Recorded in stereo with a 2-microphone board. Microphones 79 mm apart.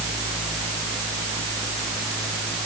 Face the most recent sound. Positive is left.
No sound to turn to.